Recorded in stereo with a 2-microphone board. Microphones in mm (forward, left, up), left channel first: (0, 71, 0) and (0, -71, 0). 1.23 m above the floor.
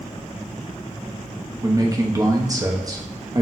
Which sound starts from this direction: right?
A man speaking, at 1.6 s.